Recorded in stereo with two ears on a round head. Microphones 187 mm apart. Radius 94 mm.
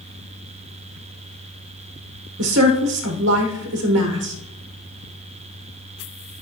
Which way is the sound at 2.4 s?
60° right (ahead or behind).